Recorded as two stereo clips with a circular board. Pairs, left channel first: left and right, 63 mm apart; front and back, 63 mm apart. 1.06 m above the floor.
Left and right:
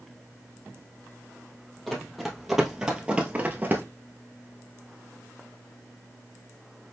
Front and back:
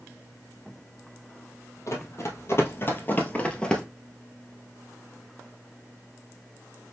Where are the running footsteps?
5° left, 1.8 m; by 3.8 s 70° right, 1.2 m.